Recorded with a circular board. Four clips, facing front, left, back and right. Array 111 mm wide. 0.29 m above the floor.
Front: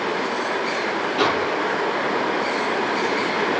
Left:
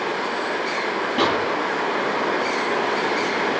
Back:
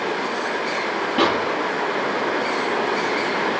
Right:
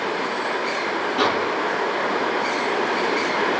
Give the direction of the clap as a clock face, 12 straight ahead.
7 o'clock.